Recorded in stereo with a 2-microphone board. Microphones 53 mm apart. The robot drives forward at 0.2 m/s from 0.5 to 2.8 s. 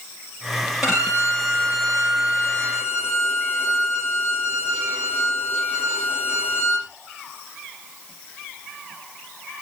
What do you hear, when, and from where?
0.8 s a violin: 10° right (ahead or behind), 8 m; by 6.9 s 5° right (ahead or behind), 8.5 m